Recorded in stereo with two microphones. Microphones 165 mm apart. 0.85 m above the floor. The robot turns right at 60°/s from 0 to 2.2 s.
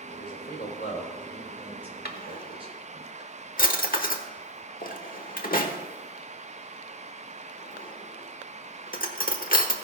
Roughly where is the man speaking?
Left.